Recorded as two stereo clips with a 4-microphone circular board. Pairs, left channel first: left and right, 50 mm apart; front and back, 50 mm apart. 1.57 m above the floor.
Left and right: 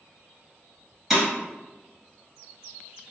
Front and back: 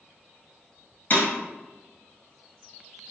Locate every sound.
1.1 s breaking glass: straight ahead, 1.9 m